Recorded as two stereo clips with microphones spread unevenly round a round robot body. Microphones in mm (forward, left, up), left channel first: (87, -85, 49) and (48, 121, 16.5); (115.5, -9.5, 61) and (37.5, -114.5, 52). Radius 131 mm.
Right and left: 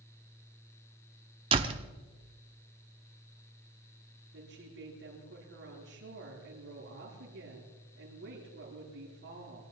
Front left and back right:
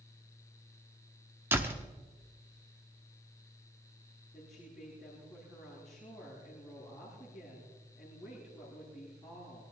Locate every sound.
1.5 s a door slam: 160° left, 0.8 m
4.3 s a woman speaking: 145° left, 9.5 m